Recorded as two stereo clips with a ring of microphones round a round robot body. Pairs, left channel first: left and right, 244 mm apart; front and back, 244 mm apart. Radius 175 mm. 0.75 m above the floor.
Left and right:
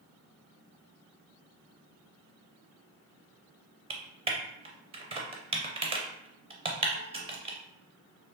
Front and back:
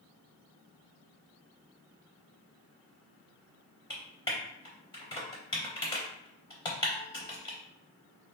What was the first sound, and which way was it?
Typing on a keyboard, 55° right.